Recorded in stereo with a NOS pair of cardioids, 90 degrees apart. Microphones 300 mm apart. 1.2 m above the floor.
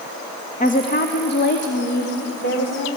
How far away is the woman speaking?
About 1.4 m.